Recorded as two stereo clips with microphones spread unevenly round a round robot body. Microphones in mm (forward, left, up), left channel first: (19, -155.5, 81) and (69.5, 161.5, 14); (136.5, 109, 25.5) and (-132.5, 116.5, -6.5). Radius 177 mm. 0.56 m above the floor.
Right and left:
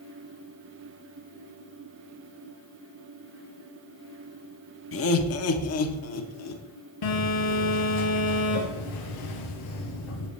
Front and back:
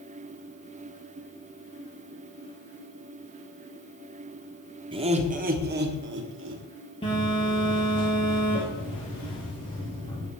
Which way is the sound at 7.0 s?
75° right.